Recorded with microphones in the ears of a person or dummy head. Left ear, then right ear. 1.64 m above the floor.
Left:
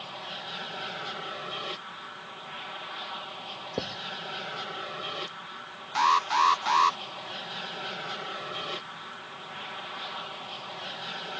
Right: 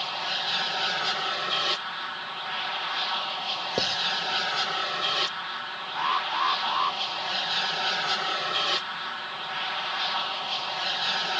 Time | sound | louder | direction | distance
0.0 | an aircraft | right 9 dB | 45° right (ahead or behind) | ?
3.8 | writing | right 7 dB | 35° right (ahead or behind) | ?
6.0 | an alarm | left 4 dB | 70° left (ahead or behind) | ?